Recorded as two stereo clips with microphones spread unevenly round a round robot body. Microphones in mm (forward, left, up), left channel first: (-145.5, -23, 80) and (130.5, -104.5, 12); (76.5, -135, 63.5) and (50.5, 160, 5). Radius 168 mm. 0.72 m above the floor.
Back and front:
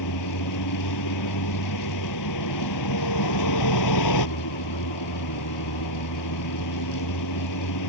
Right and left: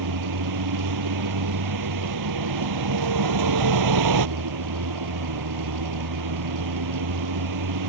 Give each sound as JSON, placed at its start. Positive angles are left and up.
{"t": 0.0, "sound": "a vehicle", "azimuth_deg": 125}